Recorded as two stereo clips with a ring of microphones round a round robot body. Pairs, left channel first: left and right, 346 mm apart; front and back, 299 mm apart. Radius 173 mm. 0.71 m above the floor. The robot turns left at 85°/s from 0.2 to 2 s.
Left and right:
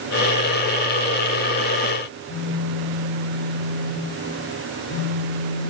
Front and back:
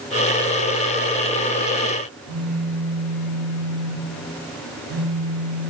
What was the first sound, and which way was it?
A phone buzzing, 155° left.